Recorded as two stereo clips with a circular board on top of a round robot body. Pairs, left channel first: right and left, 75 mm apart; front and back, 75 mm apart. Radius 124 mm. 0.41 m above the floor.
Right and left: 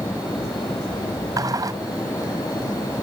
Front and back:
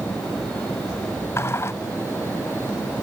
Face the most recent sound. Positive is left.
turn(degrees=55)